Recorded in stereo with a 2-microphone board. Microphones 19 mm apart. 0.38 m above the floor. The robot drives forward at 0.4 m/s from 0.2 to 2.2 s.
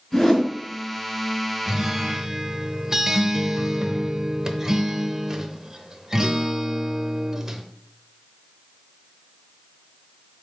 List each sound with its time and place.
0.1 s a whoosh: 15° left (ahead or behind), 4 m
1.7 s a guitar: 20° right (ahead or behind), 0.8 m; by 7.6 s 25° right (ahead or behind), 0.6 m